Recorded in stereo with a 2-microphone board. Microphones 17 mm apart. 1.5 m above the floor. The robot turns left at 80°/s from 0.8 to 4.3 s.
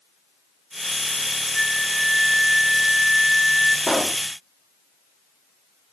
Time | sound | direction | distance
1.5 | a flute | 40° right | 4 m
3.9 | a pop | 50° left (ahead or behind) | 1.1 m